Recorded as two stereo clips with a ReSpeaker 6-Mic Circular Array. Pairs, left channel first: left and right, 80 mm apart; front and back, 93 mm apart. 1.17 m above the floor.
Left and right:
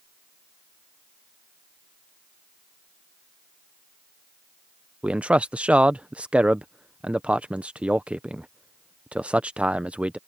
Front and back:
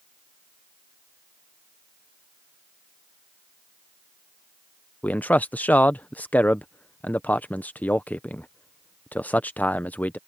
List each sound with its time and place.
5.0 s a man speaking: 40° right